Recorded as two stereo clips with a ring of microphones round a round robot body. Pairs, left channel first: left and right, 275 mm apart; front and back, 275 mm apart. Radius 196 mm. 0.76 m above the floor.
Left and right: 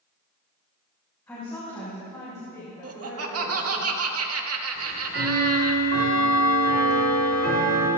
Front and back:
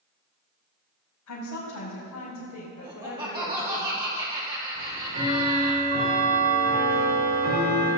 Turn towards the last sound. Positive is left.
turn(degrees=-125)